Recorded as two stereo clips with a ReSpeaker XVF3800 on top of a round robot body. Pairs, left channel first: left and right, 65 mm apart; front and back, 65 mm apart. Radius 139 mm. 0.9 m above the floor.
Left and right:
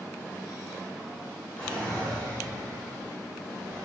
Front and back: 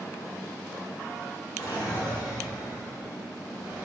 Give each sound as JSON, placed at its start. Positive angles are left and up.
{"t": 1.6, "sound": "a drawer", "azimuth_deg": 15, "distance_m": 1.9}